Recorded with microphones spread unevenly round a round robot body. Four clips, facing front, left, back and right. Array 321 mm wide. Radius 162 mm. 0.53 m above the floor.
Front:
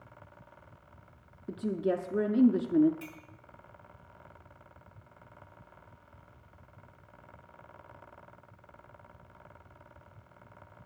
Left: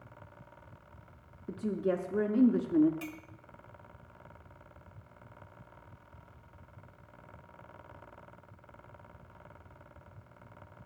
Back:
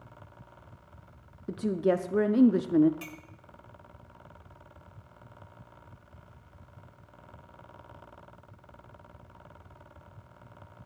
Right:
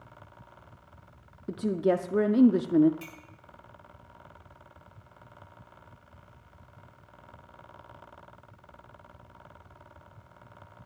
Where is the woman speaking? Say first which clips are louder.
Right 6 dB, back 4 dB; 100° right, 0.6 m.